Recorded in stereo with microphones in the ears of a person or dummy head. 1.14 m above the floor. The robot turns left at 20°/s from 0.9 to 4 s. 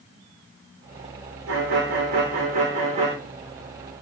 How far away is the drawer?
I don't hear a drawer.